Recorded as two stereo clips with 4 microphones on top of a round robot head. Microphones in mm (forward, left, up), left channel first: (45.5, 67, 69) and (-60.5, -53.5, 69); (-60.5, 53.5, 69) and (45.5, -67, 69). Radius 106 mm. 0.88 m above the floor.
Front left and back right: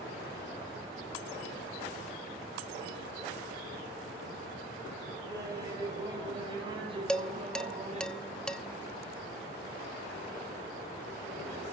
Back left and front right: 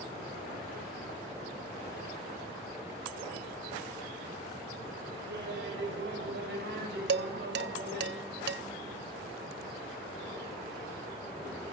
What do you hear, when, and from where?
5.3 s laughter: 60° right, 9 m; by 8.1 s 80° right, 7.5 m
7.1 s dishes clattering: 35° right, 1.1 m